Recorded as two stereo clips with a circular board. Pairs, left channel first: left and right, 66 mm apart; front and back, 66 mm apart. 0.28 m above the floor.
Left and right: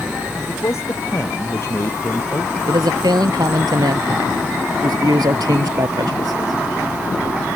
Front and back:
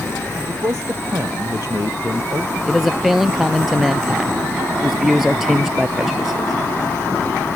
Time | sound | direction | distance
0.5 | a man speaking | 135° left | ?
2.7 | a man speaking | 95° right | ?